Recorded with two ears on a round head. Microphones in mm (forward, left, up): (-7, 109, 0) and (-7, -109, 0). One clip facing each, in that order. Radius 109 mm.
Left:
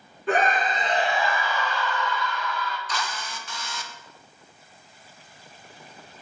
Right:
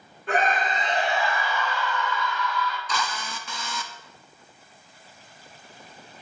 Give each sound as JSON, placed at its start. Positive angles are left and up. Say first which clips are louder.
{"t": 0.3, "sound": "a scream", "louder": "left 2 dB", "side_deg": 65, "distance_m": 1.6}
{"t": 2.9, "sound": "a drill", "louder": "right 2 dB", "side_deg": -65, "distance_m": 0.7}